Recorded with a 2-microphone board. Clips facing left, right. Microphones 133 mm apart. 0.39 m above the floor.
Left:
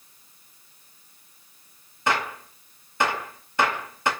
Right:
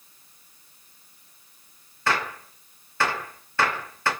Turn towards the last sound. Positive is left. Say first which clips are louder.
# left 1 dB
turn(degrees=20)  # may be behind; listen again after turning